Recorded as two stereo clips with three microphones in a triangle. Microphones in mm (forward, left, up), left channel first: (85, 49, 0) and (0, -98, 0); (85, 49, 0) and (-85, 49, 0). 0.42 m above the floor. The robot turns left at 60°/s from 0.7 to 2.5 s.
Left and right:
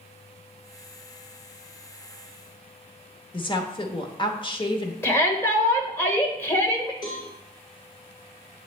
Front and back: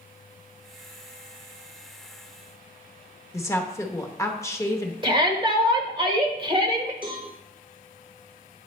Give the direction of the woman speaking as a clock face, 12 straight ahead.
10 o'clock.